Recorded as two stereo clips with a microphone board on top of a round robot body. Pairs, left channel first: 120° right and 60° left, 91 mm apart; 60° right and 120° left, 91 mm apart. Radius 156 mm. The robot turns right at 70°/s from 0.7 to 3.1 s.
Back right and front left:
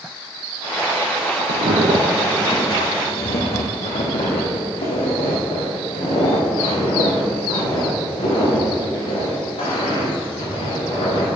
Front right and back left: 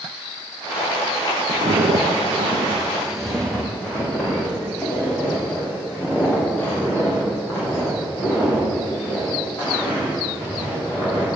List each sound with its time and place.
1.5 s footsteps: 60° left, 1.0 m; by 11.3 s 125° right, 7.5 m